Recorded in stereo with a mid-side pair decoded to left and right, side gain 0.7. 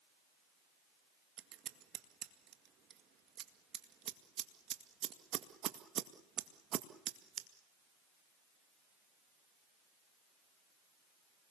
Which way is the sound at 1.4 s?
45° right.